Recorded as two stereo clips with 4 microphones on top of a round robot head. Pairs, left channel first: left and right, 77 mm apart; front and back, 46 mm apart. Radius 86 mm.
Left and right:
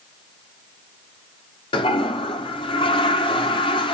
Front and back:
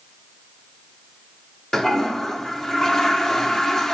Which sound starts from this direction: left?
A toilet flushing, at 1.7 s.